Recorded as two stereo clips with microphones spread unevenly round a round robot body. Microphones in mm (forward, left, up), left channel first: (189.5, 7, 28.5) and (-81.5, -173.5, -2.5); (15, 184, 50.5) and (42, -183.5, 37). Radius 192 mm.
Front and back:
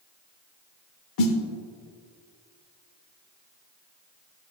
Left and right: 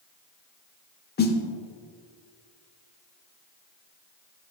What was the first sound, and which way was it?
A snare drum, 35° left.